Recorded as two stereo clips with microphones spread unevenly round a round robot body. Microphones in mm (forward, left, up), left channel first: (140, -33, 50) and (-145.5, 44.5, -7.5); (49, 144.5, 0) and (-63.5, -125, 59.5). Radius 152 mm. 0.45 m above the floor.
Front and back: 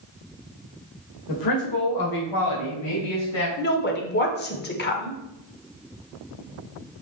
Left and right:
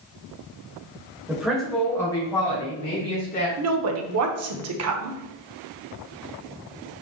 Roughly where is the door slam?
No door slam in this recording.